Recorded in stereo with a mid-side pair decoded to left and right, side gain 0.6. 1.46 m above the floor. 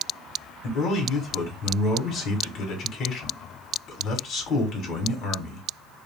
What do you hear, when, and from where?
0.6 s a man speaking: 55° left, 2 m